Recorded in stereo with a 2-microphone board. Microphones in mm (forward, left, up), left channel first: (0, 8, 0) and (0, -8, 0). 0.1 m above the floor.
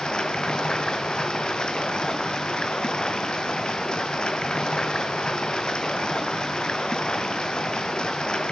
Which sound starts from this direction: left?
Running water, at 0.0 s.